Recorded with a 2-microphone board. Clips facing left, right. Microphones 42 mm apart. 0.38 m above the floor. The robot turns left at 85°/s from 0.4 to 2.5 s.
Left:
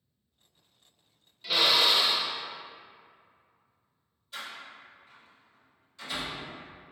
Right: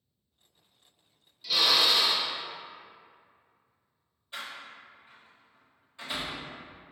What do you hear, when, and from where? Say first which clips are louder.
1.4 s a drill: left 1 dB; 105° left, 0.6 m; by 2.3 s 35° left, 0.6 m
4.3 s a door slam: right 1 dB; 25° right (ahead or behind), 1.4 m